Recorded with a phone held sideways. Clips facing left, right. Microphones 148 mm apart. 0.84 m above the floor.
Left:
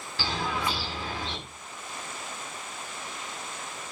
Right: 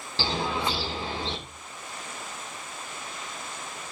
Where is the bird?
30° right (ahead or behind), 2.5 m.